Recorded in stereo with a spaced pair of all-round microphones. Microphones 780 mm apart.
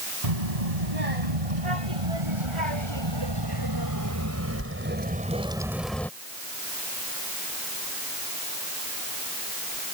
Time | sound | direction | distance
0.2 | a child speaking | 55° right (ahead or behind) | ?